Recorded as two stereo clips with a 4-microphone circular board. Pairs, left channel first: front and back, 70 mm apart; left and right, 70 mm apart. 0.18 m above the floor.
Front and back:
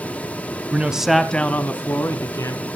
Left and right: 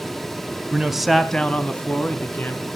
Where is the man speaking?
150° right, 1.0 m; by 2.6 s 30° left, 1.8 m.